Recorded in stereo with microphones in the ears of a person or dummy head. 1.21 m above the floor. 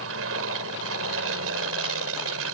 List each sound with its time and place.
0.0 s an aircraft: 75° right (ahead or behind)